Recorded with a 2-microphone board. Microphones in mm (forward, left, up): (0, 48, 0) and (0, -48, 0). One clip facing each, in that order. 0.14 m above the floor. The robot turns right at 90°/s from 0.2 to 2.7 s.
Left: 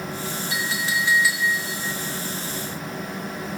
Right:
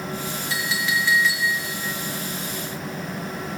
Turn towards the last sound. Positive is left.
turn(degrees=-60)